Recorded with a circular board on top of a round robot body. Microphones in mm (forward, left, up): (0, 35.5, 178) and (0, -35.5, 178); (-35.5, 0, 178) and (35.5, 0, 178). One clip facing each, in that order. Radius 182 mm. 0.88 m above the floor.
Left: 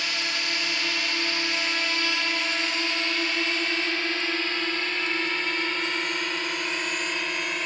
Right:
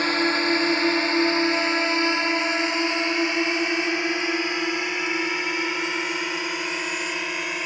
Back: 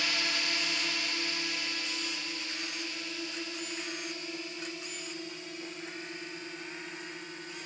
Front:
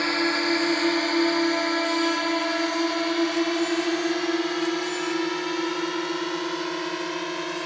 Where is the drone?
45° right; by 7.7 s 5° right.